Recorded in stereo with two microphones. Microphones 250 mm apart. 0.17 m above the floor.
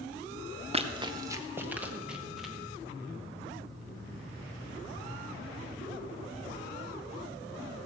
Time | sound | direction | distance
0.7 | running footsteps | 25° right (ahead or behind) | 1.4 m